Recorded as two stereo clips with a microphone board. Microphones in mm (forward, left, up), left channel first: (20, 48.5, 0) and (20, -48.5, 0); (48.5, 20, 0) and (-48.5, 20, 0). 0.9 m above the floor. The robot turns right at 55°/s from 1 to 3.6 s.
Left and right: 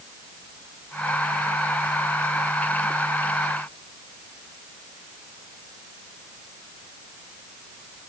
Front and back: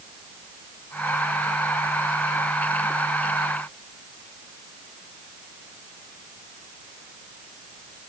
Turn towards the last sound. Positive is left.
No sound to turn to.